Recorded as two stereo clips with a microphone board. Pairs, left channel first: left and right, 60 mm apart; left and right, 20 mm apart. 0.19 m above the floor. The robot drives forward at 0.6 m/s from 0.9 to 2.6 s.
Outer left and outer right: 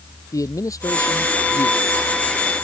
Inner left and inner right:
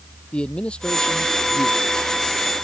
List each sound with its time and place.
0.3 s a man speaking: 70° left (ahead or behind)